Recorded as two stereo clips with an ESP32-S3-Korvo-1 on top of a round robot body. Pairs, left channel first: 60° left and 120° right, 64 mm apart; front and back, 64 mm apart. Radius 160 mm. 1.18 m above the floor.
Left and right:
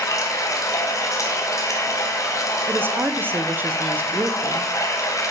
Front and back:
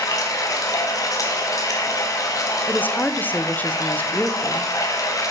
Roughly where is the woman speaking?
Ahead right.